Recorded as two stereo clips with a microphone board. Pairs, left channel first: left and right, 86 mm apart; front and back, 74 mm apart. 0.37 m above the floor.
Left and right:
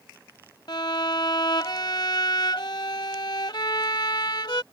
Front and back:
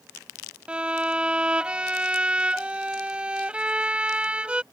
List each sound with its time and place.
0.7 s a violin: 105° left